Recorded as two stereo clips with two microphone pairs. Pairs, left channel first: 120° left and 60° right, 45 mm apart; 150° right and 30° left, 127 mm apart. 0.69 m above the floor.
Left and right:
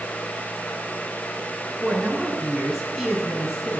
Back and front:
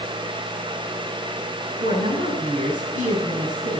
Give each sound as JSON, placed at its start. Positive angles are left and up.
{"t": 1.8, "sound": "a woman speaking", "azimuth_deg": 25, "distance_m": 6.0}